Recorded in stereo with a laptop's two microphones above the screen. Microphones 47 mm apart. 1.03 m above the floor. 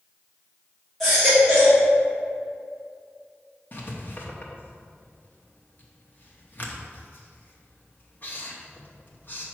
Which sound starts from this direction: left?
Writing, at 3.7 s.